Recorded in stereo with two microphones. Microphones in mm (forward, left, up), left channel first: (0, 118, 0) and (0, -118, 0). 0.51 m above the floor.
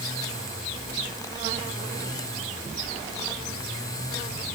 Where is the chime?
No chime in this recording.